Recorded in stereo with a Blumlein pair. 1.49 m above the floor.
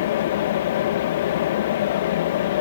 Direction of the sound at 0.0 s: 55° left.